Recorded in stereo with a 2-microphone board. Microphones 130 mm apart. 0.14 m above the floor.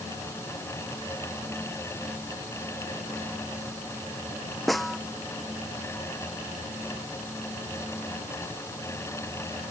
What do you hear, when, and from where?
4.7 s a snare drum: centre (ahead or behind)